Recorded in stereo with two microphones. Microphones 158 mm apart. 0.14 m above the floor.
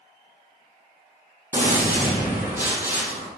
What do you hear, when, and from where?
1.5 s a gunshot: 15° right (ahead or behind), 4.5 m